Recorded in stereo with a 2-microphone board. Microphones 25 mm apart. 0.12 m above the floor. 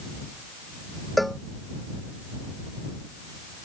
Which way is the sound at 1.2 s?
5° left (ahead or behind).